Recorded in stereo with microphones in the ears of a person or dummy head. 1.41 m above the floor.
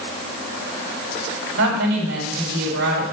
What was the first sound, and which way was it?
A woman speaking, 65° right (ahead or behind).